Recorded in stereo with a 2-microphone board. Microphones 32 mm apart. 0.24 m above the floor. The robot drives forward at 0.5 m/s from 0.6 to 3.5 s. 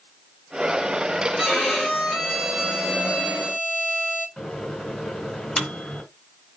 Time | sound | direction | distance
1.4 | a violin | 15° right (ahead or behind) | 3 m
4.4 | a microwave | 5° left (ahead or behind) | 2.5 m